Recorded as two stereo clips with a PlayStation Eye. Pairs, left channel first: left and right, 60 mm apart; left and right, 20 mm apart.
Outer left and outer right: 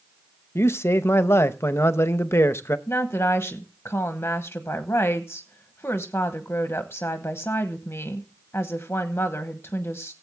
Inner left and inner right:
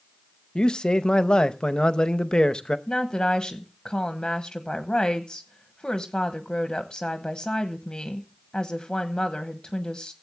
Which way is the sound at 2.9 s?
40° left (ahead or behind).